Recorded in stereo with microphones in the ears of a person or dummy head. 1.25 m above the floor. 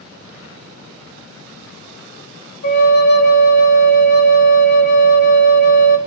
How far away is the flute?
About 0.7 m.